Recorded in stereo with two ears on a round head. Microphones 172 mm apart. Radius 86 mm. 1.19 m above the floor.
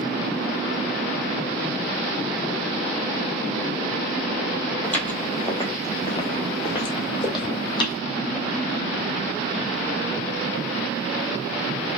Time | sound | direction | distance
4.8 | footsteps | 5° left (ahead or behind) | 1.4 m